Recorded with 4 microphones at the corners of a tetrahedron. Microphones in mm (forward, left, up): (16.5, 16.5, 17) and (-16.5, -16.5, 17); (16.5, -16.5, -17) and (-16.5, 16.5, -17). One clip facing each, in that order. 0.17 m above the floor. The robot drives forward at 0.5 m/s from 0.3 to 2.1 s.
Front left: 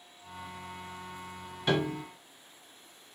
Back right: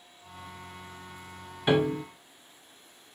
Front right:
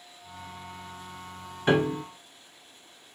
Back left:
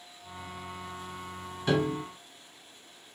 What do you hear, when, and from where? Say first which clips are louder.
1.7 s a piano: back right 5 dB, front right 4 dB; 70° right, 0.5 m; by 2.0 s 100° right, 0.5 m